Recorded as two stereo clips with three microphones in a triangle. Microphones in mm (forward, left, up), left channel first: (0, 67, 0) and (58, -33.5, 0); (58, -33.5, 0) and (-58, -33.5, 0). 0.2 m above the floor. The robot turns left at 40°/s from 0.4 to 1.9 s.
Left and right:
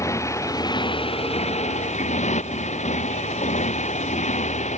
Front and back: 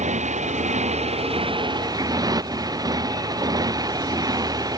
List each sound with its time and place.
0.0 s a motorcycle: 175° right; by 4.8 s 125° left